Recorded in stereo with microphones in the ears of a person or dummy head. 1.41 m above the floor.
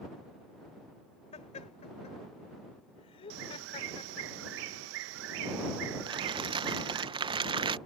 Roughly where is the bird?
Right.